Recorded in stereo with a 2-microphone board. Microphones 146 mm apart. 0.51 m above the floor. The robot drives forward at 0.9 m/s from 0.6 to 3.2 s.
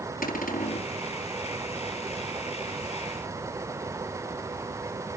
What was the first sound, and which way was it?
A cupboard door, 75° left (ahead or behind).